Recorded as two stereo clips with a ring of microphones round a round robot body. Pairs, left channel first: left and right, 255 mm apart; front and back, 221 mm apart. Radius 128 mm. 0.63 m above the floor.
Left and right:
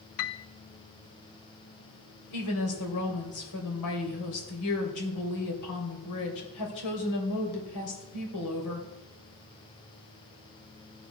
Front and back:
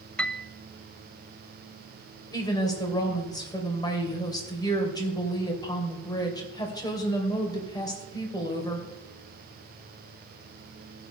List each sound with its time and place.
0.2 s a piano: 85° left, 0.5 m
2.3 s a woman speaking: 75° left, 3 m